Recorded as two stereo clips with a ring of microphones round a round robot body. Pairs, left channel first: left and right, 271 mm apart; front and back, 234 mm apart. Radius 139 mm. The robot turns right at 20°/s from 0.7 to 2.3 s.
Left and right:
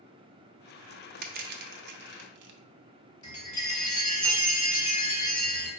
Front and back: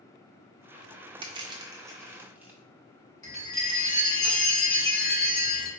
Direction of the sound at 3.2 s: 70° left.